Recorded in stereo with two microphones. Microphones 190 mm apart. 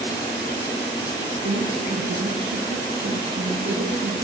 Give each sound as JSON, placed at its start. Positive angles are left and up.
{"t": 1.4, "sound": "a woman speaking", "side_deg": -75, "distance_m": 2.5}